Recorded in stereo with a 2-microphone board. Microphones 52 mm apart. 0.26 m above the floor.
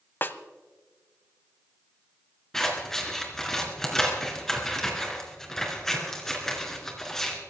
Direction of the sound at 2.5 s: 5° left (ahead or behind).